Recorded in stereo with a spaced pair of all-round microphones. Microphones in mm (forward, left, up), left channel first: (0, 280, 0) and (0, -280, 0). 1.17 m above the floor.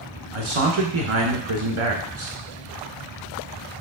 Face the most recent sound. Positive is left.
turn(degrees=-55)  # may be behind; listen again after turning